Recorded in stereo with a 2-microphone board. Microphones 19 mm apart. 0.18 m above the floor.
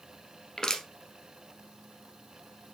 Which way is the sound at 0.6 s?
30° left (ahead or behind).